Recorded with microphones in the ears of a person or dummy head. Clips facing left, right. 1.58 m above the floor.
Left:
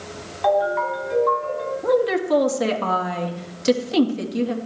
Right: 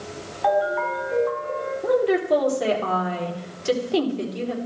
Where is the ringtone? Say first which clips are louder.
Left 2 dB; 70° left (ahead or behind), 5.5 m.